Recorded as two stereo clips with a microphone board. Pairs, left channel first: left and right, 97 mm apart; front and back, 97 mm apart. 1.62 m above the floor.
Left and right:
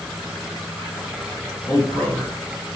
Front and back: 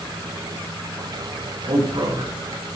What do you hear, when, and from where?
1.7 s a man speaking: 155° left, 7.5 m